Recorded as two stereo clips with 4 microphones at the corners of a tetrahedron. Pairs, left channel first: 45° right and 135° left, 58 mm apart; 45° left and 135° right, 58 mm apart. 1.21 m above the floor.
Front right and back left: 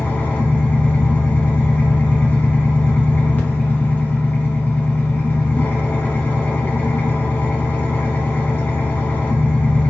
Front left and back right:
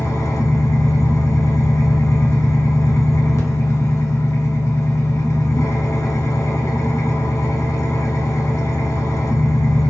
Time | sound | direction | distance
0.0 | an engine running | 10° left | 0.8 m